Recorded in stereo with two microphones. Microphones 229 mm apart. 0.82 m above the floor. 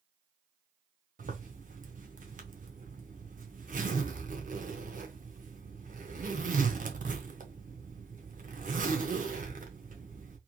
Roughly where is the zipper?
Right.